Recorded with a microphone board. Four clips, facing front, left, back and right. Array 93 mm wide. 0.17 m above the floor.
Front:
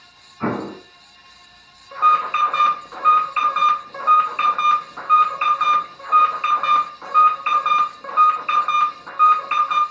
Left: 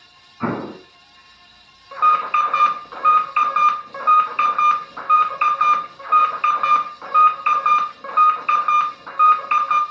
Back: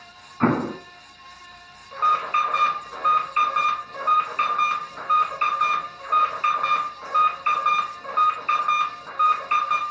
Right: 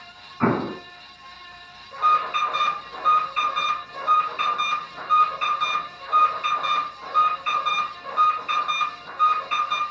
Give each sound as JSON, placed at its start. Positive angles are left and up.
{"t": 0.4, "sound": "an explosion", "azimuth_deg": -140, "distance_m": 0.9}
{"t": 1.9, "sound": "an alarm", "azimuth_deg": 80, "distance_m": 1.5}